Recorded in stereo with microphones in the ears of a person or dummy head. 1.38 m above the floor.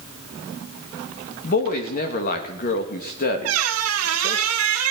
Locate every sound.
1.4 s a woman speaking: 45° left (ahead or behind), 2.5 m
3.5 s a squeak: 75° right (ahead or behind), 1.4 m